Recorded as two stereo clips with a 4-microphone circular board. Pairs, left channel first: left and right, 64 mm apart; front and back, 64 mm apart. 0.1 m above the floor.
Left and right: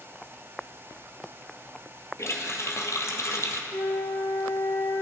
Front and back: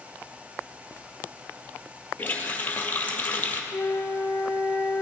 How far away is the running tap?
About 1.7 m.